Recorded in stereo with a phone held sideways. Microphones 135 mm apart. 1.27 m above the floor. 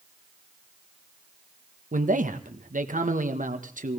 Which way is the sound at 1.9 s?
75° right (ahead or behind).